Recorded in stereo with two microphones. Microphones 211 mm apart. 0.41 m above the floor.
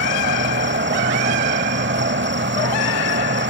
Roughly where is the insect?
Right.